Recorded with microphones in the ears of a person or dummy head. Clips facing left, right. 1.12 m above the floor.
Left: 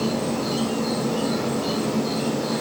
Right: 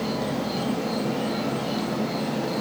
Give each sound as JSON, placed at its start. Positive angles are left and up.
{"t": 0.0, "sound": "an insect", "side_deg": 75, "distance_m": 4.5}